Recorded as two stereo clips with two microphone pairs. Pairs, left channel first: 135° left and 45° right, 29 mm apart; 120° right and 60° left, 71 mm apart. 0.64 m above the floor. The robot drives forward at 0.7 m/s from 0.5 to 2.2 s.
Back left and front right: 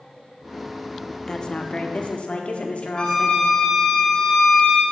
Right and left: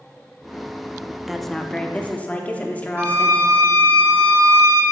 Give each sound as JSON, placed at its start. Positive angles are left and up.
{"t": 1.3, "sound": "a woman speaking", "azimuth_deg": 140, "distance_m": 0.5}
{"t": 3.0, "sound": "a violin", "azimuth_deg": 85, "distance_m": 1.3}